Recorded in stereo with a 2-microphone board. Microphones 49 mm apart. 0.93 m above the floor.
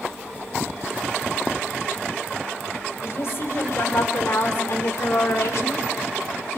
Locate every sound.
3.0 s a woman speaking: 65° left (ahead or behind), 3.5 m; by 6.6 s 55° left (ahead or behind), 2.5 m